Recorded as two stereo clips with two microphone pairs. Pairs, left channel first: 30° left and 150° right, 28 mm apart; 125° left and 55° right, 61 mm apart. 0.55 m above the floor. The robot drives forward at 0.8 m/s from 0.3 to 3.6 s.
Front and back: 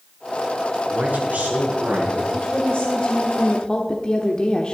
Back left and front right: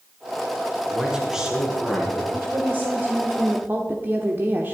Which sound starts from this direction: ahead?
A woman speaking, at 2.3 s.